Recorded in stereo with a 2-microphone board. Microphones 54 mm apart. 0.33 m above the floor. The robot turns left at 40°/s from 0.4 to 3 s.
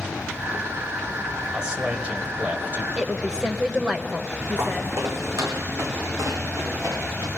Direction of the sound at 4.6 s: 50° right (ahead or behind).